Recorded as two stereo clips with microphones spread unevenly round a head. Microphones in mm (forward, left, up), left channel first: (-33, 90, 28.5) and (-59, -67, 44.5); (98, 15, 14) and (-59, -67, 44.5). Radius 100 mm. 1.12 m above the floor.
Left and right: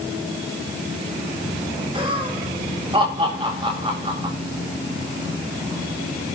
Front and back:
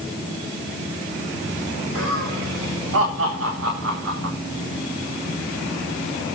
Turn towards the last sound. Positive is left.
turn(degrees=-160)